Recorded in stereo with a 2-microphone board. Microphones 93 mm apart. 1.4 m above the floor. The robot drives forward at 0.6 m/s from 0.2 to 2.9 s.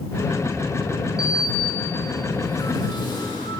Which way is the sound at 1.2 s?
55° left (ahead or behind).